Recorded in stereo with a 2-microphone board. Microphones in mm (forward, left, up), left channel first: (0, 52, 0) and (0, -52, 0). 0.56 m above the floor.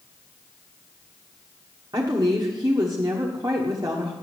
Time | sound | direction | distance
1.9 | a woman speaking | 40° right (ahead or behind) | 1.1 m